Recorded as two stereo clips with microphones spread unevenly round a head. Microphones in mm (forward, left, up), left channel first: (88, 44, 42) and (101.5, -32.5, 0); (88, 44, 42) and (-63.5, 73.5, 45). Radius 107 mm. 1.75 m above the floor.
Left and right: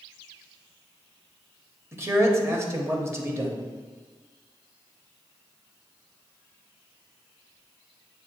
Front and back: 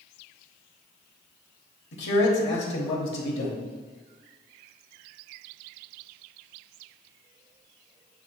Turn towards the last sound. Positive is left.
turn(degrees=-15)